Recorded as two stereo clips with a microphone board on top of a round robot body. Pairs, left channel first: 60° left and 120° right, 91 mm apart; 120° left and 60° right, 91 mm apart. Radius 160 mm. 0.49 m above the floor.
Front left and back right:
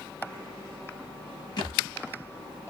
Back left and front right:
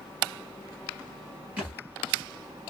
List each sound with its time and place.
1.6 s a thud: 15° left, 1.1 m